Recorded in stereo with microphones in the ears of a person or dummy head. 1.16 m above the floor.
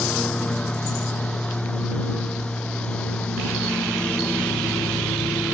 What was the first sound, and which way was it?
A lawn mower, 10° left (ahead or behind).